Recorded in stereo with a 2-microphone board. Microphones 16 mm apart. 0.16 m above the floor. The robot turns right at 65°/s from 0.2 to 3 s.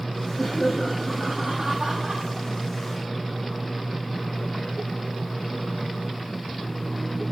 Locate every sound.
0.4 s laughter: 145° left, 7 m; by 2.2 s 95° right, 7 m